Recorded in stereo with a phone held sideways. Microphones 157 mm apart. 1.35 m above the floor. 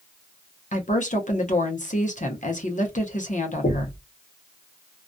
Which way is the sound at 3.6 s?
75° left (ahead or behind).